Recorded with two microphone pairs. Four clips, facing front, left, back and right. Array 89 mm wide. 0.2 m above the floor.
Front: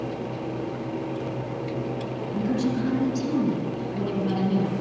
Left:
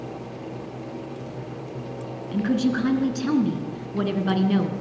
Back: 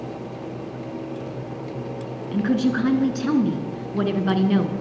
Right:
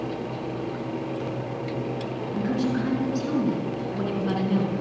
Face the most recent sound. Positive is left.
turn(degrees=150)